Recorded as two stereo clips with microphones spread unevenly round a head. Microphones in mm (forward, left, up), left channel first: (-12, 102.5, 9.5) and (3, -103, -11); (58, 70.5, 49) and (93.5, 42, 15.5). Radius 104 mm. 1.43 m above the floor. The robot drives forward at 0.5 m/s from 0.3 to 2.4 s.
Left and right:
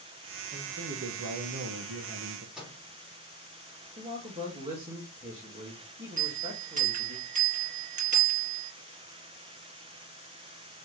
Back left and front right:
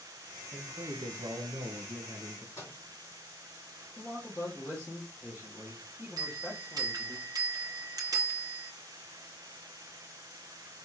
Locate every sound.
0.5 s a man speaking: 40° right, 0.9 m; by 2.5 s 115° right, 0.7 m
2.5 s a microwave: 175° right, 2.5 m
4.0 s a man speaking: 145° right, 1.6 m
6.2 s a bell: 45° right, 0.9 m